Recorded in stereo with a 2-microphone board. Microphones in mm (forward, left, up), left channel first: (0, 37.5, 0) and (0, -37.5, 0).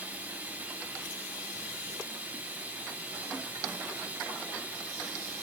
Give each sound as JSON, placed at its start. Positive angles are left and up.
{"t": 0.0, "sound": "running water", "side_deg": -20, "distance_m": 7.5}